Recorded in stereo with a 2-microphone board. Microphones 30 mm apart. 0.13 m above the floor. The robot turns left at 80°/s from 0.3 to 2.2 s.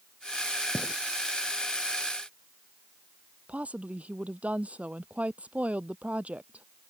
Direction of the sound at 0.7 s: 35° left (ahead or behind).